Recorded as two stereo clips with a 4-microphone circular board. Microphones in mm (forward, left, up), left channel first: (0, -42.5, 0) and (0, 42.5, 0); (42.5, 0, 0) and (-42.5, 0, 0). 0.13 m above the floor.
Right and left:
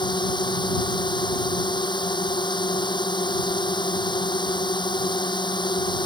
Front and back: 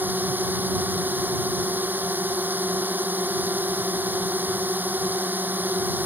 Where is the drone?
110° right.